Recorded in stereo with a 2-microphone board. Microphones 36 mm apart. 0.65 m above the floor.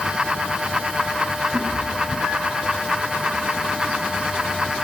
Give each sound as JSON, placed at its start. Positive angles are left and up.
{"t": 1.5, "sound": "a cat meowing", "side_deg": -85, "distance_m": 4.5}